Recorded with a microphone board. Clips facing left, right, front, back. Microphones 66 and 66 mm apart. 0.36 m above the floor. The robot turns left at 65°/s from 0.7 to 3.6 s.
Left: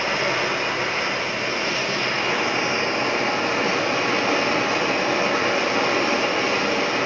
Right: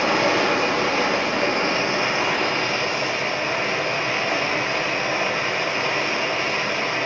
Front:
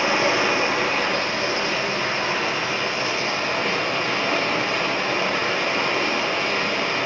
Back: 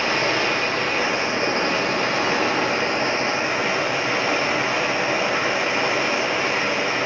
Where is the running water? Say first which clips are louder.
Right 4 dB, front 1 dB; 75° right, 5 m; by 7.1 s 95° left, 5 m.